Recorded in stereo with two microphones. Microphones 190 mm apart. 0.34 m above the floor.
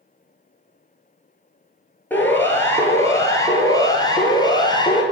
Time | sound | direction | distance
2.1 | a siren | 10° left (ahead or behind) | 7.5 m